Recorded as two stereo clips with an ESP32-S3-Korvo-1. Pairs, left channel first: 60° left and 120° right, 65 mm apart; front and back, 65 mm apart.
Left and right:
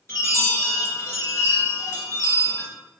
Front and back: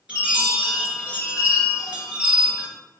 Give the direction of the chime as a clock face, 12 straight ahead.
8 o'clock.